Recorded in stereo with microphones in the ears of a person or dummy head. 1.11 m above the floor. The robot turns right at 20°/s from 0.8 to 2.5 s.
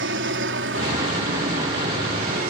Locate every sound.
0.0 s an aircraft: 95° right; by 2.5 s 60° right